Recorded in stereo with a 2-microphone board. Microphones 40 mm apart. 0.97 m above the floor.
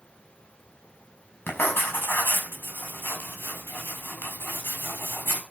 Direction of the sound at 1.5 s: 65° left (ahead or behind).